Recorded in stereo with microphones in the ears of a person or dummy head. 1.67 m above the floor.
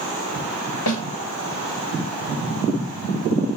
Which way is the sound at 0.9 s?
70° left (ahead or behind).